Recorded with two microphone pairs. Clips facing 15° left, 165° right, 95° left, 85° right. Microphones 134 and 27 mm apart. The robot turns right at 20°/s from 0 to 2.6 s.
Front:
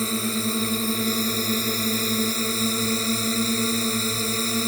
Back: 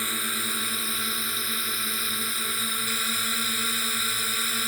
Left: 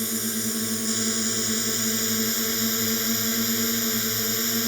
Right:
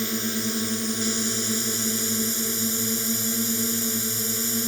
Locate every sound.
0.0 s a drone: 15° right; by 4.7 s 35° left